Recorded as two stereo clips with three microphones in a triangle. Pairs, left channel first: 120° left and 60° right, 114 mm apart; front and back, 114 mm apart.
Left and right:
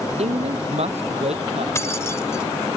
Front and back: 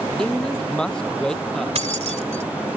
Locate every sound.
0.2 s a man speaking: 85° right
1.8 s keys jangling: 175° right